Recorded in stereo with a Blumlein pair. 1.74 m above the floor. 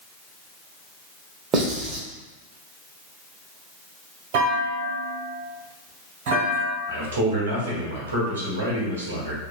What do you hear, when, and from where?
1.5 s writing: 25° right, 0.9 m
4.3 s a clunk: 50° right, 1.3 m
6.9 s a man speaking: 70° right, 1.1 m